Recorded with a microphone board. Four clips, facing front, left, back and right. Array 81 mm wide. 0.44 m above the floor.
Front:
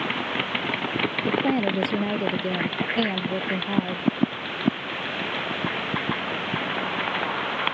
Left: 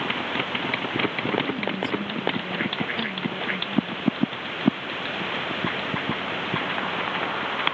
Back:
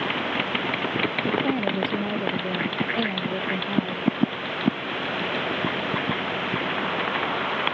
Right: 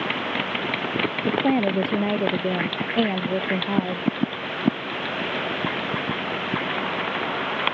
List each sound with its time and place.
1.3 s a woman speaking: 75° right